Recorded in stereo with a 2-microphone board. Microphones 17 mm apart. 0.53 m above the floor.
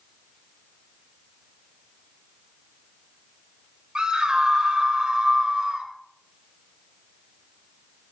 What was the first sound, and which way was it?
A scream, 60° right (ahead or behind).